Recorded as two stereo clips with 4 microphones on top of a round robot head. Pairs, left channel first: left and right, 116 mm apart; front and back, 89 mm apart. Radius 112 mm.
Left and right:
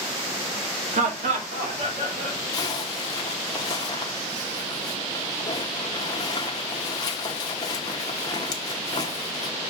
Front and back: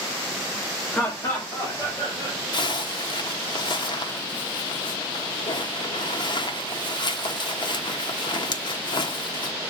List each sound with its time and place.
0.9 s laughter: 75° right, 1.7 m; by 2.4 s 55° right, 3.5 m
2.5 s a zipper: 30° left, 0.9 m